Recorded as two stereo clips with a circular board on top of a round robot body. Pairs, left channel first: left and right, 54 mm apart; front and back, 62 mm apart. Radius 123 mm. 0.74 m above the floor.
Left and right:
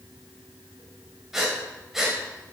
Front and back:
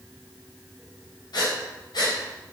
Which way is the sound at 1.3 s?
5° right.